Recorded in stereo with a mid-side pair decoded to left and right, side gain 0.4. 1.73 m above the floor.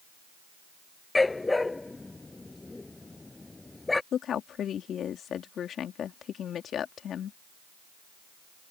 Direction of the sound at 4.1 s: 65° left.